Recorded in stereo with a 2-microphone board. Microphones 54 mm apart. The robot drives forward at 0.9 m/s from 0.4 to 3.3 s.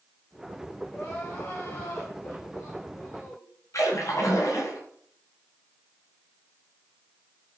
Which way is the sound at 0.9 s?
40° left (ahead or behind).